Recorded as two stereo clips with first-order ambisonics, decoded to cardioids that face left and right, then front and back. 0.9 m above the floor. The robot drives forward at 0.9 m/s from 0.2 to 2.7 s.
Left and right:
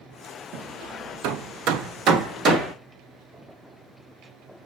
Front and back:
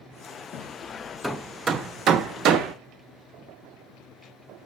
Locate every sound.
0.5 s hammering: 50° right, 1.2 m; by 2.7 s 145° right, 1.6 m